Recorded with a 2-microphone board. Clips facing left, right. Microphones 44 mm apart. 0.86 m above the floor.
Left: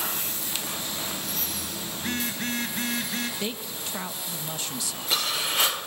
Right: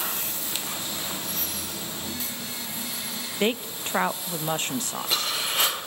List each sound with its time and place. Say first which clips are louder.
2.0 s a phone buzzing: left 4 dB; 60° left (ahead or behind), 3 m
3.4 s a woman speaking: right 7 dB; 40° right (ahead or behind), 0.8 m